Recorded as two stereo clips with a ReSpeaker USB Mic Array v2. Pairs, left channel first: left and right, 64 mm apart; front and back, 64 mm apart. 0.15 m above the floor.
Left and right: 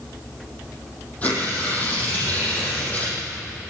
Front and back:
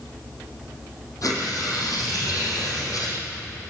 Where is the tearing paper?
25° left, 7 m.